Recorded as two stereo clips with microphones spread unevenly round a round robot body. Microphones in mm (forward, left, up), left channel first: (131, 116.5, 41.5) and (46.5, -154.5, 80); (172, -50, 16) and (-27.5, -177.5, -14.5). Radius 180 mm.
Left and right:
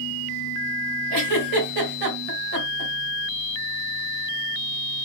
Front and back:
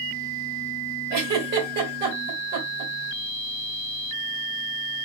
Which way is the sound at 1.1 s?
135° right.